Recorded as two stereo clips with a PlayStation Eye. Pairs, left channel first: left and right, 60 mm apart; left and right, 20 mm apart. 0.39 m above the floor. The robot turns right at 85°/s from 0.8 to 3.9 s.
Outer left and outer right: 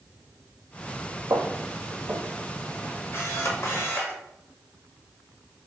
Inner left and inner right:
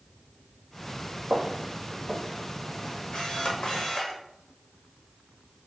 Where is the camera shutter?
65° left, 0.9 m; by 4.2 s 130° left, 0.9 m.